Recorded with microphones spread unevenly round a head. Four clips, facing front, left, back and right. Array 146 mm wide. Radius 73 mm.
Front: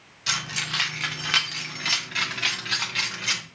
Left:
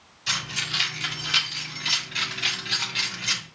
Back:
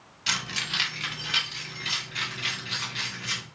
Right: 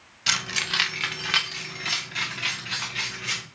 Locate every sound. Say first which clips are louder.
0.3 s keys jangling: right 3 dB, front 2 dB; 80° right, 1.2 m; by 3.4 s 10° left, 2.0 m